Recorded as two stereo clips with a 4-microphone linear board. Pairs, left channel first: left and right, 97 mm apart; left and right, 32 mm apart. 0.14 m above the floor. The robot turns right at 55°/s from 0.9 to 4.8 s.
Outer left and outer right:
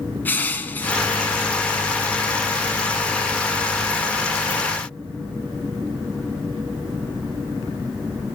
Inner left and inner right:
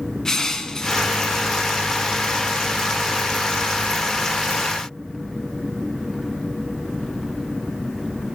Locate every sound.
0.2 s crushing: 20° left (ahead or behind), 0.9 m